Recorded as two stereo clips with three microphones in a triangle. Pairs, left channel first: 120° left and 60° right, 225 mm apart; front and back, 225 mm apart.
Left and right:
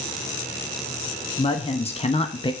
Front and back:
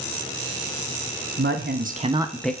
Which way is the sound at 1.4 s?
Straight behind.